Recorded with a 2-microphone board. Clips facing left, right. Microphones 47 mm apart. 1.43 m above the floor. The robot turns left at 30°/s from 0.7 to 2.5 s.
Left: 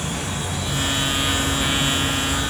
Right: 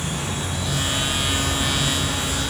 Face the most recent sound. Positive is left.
turn(degrees=15)